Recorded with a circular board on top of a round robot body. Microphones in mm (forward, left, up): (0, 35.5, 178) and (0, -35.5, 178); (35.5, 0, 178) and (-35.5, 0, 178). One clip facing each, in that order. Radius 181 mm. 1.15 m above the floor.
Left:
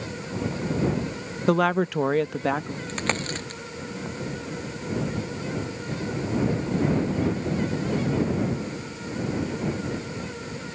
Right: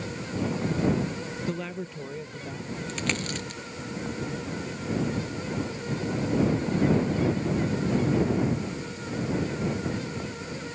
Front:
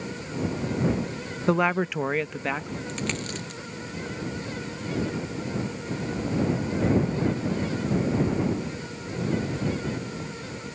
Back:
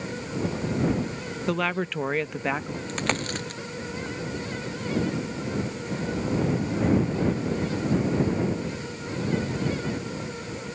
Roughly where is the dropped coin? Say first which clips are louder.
Left 3 dB, back 5 dB; behind left.